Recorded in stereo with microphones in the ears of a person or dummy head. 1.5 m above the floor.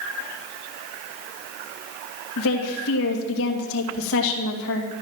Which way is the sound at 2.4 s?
70° left (ahead or behind).